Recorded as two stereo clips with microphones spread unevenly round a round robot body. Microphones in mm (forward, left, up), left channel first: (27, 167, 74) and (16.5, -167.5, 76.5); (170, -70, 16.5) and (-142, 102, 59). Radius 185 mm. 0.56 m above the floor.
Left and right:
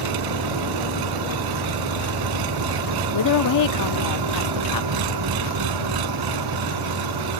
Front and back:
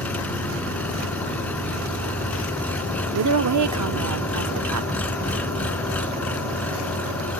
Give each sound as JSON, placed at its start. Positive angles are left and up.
{"t": 0.0, "sound": "an engine running", "azimuth_deg": -115}
{"t": 3.1, "sound": "a woman speaking", "azimuth_deg": 110}